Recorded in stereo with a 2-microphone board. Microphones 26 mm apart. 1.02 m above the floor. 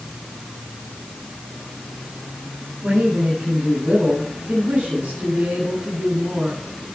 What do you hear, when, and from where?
2.8 s a man speaking: 60° right (ahead or behind), 9.5 m